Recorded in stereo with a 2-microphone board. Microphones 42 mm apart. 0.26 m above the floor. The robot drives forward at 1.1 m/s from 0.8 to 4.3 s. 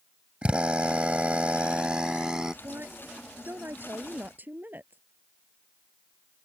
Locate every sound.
0.4 s a drill: 25° right (ahead or behind); by 2.5 s 15° right (ahead or behind)
2.6 s a woman speaking: 60° right (ahead or behind); by 5.0 s 45° right (ahead or behind)